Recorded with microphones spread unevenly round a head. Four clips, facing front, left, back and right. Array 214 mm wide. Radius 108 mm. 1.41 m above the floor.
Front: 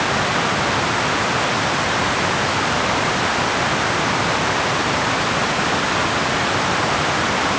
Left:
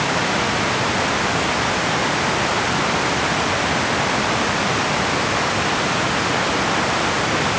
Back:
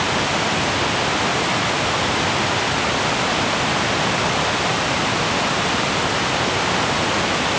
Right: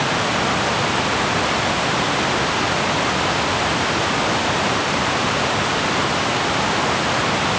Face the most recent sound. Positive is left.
No sound to turn to.